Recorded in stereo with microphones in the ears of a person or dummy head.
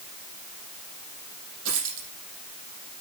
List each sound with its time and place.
1.6 s a dropped coin: 80° right, 5.5 m